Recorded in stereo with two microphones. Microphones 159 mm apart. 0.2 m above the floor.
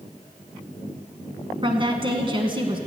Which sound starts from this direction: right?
A woman speaking, at 1.6 s.